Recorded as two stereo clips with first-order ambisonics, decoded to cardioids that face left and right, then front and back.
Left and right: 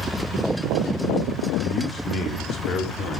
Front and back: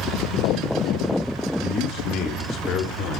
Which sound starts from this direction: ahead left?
A man speaking, at 1.6 s.